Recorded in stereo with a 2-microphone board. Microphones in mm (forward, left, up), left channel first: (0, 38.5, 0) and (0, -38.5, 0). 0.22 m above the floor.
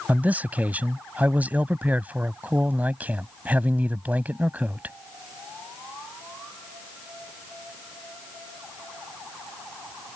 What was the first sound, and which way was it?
A man speaking, 20° right (ahead or behind).